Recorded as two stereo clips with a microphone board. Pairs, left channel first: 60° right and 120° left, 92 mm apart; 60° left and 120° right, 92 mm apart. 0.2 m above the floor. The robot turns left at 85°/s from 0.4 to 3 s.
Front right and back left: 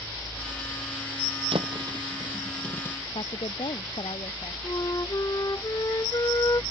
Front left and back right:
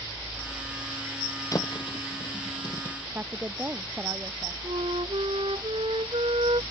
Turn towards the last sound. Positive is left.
turn(degrees=-110)